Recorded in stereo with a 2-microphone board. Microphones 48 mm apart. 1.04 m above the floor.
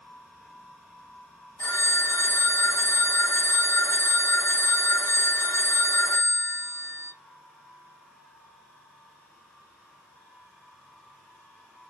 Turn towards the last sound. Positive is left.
turn(degrees=75)  # may be behind; listen again after turning